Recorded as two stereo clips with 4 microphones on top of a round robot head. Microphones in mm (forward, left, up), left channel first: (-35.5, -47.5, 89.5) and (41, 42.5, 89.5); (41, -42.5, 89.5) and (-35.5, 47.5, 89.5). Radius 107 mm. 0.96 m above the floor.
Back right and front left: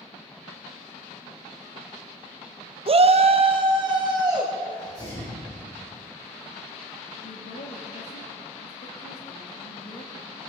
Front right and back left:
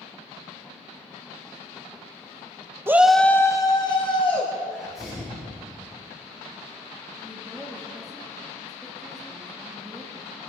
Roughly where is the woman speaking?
Behind right.